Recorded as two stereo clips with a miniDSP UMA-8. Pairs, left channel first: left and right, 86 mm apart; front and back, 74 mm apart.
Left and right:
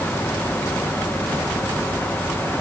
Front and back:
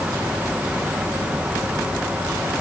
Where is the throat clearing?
No throat clearing in this recording.